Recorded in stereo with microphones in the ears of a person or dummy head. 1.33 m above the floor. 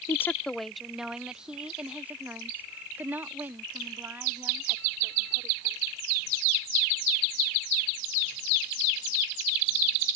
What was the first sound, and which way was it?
A woman speaking, 15° left (ahead or behind).